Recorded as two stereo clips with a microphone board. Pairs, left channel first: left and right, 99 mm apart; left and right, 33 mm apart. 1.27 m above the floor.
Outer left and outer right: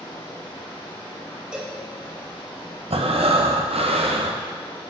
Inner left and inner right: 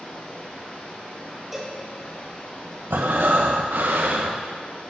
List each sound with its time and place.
0.0 s running water: 75° left (ahead or behind), 3 m
1.5 s a cowbell: 10° right (ahead or behind), 1.1 m
2.9 s breathing: 75° right (ahead or behind), 0.6 m